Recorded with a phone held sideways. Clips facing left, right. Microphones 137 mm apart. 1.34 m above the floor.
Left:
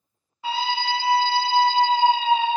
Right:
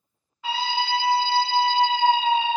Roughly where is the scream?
Left.